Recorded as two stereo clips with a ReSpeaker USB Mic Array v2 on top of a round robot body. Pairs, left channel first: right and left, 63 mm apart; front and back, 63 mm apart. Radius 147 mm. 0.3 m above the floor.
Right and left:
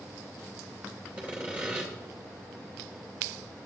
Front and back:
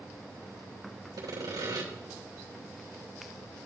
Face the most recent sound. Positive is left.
turn(degrees=160)